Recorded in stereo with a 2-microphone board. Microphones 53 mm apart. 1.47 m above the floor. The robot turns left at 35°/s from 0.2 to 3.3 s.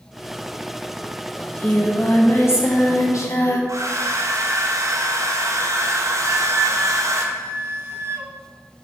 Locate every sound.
1.4 s singing: 155° left, 0.9 m; by 3.6 s 90° left, 0.9 m
3.7 s a hair dryer: 70° right (ahead or behind), 0.8 m
6.2 s a flute: 45° right (ahead or behind), 0.7 m